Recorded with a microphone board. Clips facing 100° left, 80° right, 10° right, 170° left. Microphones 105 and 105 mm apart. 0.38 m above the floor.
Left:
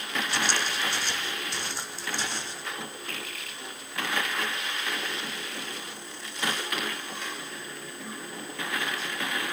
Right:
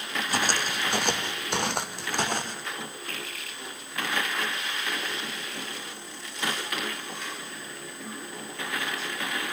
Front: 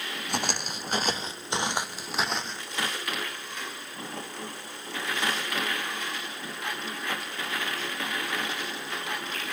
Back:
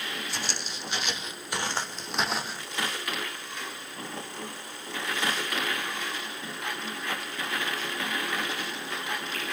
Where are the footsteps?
35° right, 1.3 m; by 2.6 s 110° right, 1.4 m.